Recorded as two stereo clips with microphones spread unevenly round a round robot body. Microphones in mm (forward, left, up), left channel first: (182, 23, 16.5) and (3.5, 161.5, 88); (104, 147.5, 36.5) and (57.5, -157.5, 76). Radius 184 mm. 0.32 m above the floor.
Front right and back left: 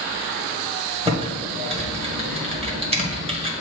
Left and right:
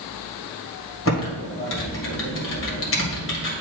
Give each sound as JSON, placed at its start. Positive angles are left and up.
{"t": 1.1, "sound": "typing on a keyboard", "azimuth_deg": 70, "distance_m": 1.9}